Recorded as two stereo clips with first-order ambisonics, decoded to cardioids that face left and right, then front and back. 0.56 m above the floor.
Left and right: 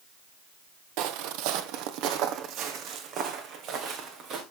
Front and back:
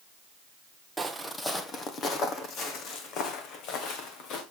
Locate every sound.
1.0 s footsteps: 100° right, 1.1 m; by 4.4 s 35° right, 3 m